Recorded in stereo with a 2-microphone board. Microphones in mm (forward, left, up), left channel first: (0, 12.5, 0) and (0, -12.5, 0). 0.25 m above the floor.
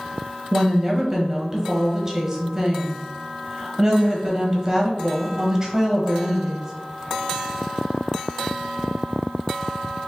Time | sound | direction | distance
0.5 | a woman speaking | 20° right (ahead or behind) | 1.1 m